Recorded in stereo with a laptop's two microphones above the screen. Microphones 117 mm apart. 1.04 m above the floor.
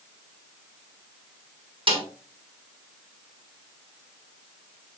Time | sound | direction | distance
1.9 | a snare drum | 50° right (ahead or behind) | 4.5 m